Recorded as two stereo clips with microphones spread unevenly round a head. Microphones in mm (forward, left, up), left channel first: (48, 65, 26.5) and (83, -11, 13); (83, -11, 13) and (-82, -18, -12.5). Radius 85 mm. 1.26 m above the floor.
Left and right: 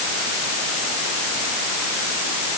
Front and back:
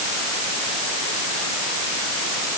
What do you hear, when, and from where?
Only background noise.